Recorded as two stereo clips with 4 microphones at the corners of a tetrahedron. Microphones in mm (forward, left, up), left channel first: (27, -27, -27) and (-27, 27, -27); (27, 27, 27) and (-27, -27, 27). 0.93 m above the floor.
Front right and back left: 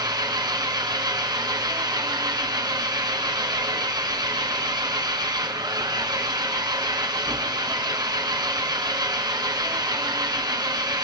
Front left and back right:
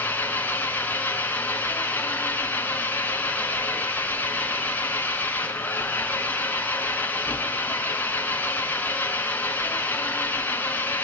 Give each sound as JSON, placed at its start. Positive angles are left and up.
{"t": 0.0, "sound": "an engine running", "azimuth_deg": 110, "distance_m": 2.5}